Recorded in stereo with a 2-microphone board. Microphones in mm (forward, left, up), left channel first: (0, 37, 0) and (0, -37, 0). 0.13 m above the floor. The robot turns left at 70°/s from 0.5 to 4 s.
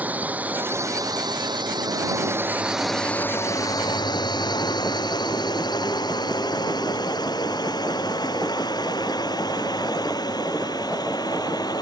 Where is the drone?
25° right (ahead or behind); by 11.8 s 65° left (ahead or behind).